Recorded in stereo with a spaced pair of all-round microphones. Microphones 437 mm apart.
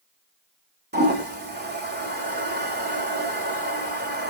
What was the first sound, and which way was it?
A toilet flushing, 25° right (ahead or behind).